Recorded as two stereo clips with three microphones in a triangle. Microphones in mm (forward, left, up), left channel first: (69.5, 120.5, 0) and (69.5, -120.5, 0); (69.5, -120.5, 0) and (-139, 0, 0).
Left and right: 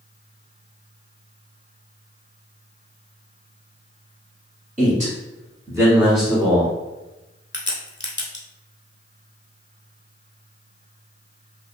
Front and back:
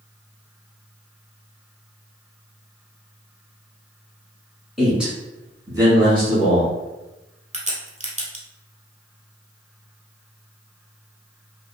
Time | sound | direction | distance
4.8 | a man speaking | 120° right | 1.4 m
7.5 | a crack | 100° left | 0.6 m